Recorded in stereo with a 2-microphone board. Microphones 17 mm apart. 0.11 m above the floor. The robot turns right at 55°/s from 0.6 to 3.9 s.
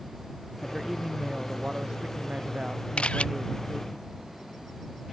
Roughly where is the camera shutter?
Left.